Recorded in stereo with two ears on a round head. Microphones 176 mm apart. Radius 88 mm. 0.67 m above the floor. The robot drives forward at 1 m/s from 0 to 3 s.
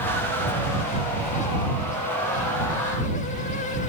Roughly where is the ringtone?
No ringtone in this recording.